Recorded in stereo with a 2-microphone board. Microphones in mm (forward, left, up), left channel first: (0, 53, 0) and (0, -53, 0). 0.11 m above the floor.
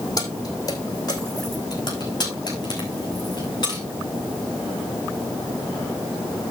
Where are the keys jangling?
35° left (ahead or behind), 3.5 m; by 3.8 s 40° left (ahead or behind), 7 m.